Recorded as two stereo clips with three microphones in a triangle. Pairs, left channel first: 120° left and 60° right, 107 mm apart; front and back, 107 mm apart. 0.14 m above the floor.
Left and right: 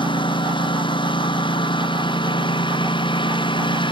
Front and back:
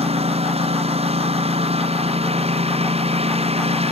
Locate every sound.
0.0 s a lawn mower: 160° left